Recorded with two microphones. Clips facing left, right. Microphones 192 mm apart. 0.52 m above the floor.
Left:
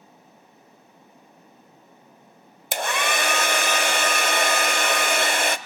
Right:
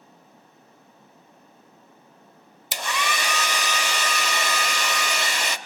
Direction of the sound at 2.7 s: 55° left (ahead or behind).